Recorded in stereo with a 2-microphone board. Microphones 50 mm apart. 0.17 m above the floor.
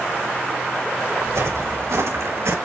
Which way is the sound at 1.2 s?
85° right.